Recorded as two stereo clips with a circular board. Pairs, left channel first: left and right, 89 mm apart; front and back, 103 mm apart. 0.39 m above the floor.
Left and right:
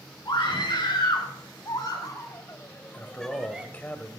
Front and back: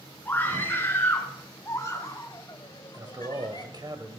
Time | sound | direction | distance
0.2 | a scream | 70° left | 5 m
2.9 | a man speaking | 150° left | 1.8 m